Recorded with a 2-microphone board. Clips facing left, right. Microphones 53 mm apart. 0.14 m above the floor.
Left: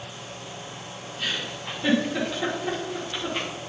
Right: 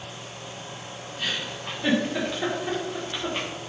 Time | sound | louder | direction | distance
1.2 | a giggle | even | 10° right (ahead or behind) | 5.5 m